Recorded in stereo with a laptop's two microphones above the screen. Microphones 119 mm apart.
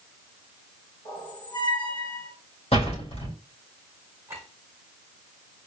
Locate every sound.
1.1 s a squeak: 40° left (ahead or behind), 2 m
2.7 s a door slam: 60° left (ahead or behind), 4 m
4.3 s a clink: 20° right (ahead or behind), 6 m